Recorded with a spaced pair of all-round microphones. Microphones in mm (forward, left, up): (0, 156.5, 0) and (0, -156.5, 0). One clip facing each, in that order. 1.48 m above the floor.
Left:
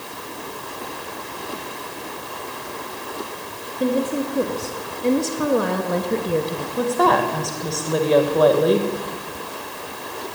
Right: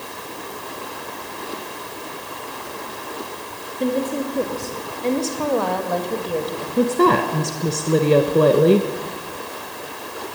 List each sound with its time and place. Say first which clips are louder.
3.8 s a woman speaking: left 1 dB; 5° left (ahead or behind), 3 m; by 6.7 s 35° left (ahead or behind), 1.8 m
6.8 s a woman speaking: right 3 dB; 30° right (ahead or behind), 1.4 m